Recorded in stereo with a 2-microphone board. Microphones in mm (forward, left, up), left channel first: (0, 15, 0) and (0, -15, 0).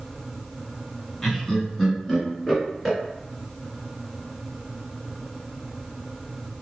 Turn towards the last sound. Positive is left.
turn(degrees=10)  # may be behind; listen again after turning